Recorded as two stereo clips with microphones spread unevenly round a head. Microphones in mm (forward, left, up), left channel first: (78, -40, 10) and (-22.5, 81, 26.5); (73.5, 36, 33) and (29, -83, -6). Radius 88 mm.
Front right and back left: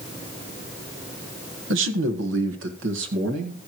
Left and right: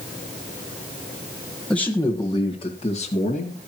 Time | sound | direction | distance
1.7 | a man speaking | 155° left | 1.3 m